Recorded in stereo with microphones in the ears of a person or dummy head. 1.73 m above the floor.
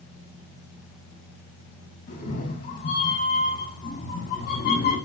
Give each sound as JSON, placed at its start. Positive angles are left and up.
{"t": 2.1, "sound": "a cat meowing", "side_deg": 40, "distance_m": 5.5}